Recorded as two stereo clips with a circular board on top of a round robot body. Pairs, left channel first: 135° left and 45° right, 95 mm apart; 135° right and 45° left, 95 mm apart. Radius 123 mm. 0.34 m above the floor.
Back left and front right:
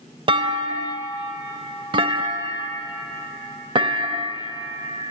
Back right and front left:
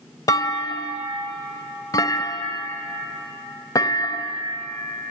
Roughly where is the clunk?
Right.